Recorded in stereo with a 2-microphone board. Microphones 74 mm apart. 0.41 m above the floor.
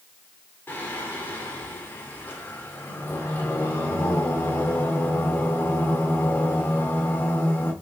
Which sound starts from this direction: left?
Singing, at 0.7 s.